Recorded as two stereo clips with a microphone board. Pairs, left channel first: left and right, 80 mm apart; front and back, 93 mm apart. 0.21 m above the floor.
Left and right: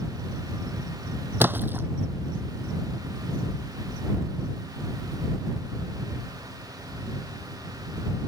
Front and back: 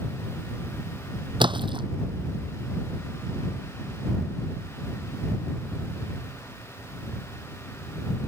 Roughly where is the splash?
Behind right.